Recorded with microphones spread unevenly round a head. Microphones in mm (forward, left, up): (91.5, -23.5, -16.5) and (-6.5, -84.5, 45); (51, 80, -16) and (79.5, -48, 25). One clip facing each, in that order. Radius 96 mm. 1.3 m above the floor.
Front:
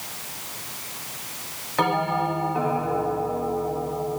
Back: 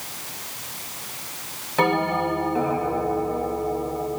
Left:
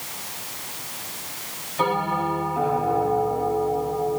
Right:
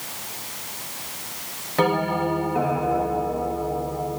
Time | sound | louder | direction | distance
1.8 | a bell | back 2 dB, right 2 dB | 80° right | 10 m